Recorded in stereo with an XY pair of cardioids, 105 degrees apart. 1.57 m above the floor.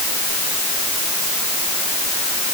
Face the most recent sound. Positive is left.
No sound to turn to.